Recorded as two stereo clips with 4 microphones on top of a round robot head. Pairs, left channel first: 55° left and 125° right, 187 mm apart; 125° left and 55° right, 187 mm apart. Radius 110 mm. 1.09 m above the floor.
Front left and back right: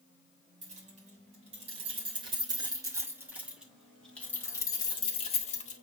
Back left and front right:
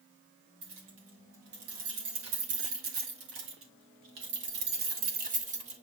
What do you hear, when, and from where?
0.6 s keys jangling: 70° right, 4 m; by 5.8 s 5° left, 2.5 m